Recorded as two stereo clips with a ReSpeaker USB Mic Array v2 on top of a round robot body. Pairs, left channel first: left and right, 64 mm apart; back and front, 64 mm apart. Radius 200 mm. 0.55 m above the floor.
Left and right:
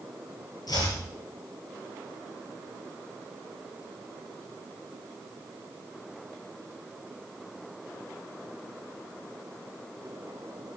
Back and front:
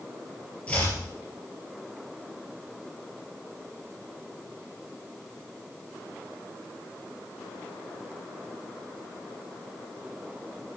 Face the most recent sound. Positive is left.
turn(degrees=110)